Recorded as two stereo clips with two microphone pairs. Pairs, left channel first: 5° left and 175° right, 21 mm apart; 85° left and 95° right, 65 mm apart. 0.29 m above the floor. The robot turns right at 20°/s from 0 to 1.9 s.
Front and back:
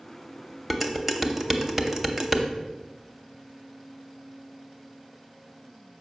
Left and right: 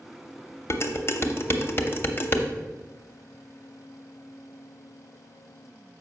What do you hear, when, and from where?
0.7 s dishes clattering: 100° left, 0.7 m; by 2.5 s 125° left, 0.7 m